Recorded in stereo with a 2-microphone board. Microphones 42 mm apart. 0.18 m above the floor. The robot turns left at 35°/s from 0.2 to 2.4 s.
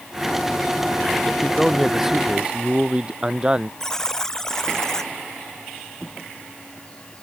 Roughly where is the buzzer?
Centre.